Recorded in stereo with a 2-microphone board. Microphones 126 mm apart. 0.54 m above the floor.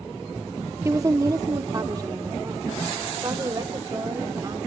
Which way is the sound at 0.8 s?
25° right (ahead or behind).